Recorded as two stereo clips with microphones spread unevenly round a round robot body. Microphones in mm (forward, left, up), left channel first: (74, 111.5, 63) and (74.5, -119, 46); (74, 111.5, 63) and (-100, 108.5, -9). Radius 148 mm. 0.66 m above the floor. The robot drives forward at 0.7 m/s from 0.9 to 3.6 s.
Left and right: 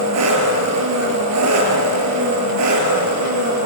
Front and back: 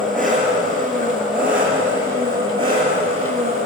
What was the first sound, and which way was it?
An engine running, 85° right.